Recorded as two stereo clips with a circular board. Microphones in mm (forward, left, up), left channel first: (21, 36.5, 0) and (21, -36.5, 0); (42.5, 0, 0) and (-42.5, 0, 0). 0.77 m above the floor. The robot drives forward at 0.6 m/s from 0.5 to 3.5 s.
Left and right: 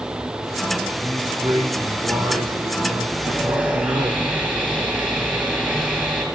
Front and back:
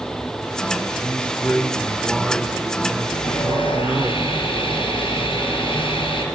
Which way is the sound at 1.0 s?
65° right.